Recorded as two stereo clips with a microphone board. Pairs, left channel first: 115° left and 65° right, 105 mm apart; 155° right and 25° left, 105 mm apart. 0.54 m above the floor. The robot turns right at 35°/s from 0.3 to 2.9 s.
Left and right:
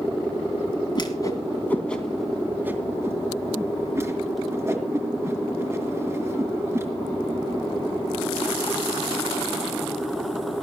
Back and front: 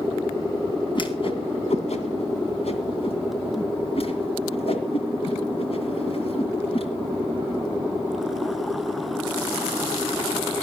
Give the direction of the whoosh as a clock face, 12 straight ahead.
7 o'clock.